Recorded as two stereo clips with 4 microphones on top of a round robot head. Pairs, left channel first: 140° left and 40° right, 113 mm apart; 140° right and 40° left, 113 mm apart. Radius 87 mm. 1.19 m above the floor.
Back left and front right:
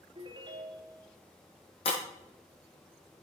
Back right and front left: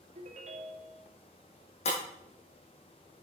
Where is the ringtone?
10° left, 1.8 m.